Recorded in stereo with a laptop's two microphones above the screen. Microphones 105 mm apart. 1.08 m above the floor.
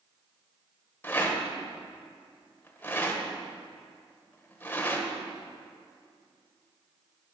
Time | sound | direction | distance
1.0 | a rattle | 20° left (ahead or behind) | 1.5 m